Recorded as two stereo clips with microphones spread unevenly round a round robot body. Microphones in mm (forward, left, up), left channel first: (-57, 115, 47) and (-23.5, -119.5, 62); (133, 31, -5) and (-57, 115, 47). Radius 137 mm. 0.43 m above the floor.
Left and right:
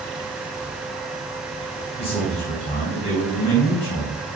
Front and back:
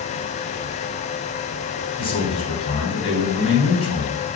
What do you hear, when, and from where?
2.0 s a man speaking: 30° left, 3 m